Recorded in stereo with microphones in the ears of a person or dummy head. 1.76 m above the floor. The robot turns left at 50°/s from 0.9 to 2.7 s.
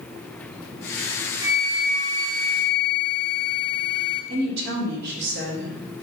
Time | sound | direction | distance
1.4 | a flute | 165° right | 1.2 m
4.3 | a woman speaking | 60° right (ahead or behind) | 3.5 m